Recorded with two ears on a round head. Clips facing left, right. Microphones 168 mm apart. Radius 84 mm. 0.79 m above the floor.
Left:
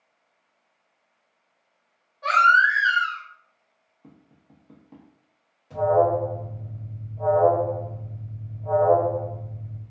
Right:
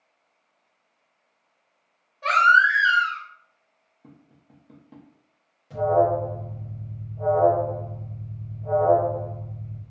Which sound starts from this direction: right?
A baby crying, at 2.2 s.